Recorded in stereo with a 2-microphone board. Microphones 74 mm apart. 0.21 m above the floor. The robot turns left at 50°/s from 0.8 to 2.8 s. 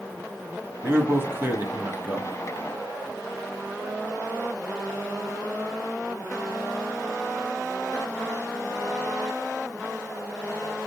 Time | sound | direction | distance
0.8 | a man speaking | 70° right | 1.9 m